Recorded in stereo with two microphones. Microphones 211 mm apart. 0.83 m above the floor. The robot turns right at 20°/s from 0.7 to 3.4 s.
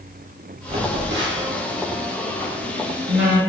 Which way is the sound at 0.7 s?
50° right (ahead or behind).